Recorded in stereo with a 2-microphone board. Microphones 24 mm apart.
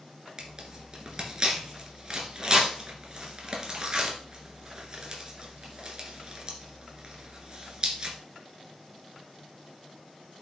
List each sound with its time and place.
0.4 s tearing paper: 40° right (ahead or behind), 2 m